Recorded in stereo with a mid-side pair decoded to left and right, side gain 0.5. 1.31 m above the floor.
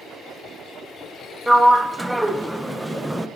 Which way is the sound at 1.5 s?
5° right.